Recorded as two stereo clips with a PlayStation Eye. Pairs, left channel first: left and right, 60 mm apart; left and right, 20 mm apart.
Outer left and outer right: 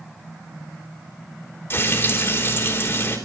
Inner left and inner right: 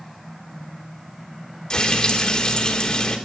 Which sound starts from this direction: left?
Frying, at 1.7 s.